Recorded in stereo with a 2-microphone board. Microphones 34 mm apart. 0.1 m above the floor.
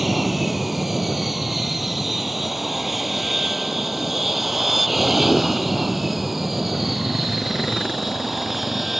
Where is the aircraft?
5° right (ahead or behind).